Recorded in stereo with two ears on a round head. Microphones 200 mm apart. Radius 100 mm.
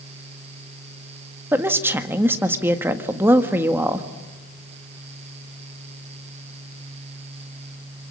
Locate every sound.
1.5 s a woman speaking: 10° right (ahead or behind), 1.6 m